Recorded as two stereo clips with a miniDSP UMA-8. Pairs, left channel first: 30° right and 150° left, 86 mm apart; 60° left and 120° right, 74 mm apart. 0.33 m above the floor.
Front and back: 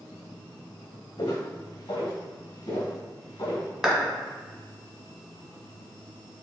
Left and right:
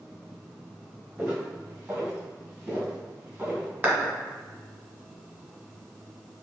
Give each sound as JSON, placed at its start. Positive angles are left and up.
{"t": 1.2, "sound": "footsteps", "azimuth_deg": -50, "distance_m": 1.7}
{"t": 3.8, "sound": "a clap", "azimuth_deg": -135, "distance_m": 1.2}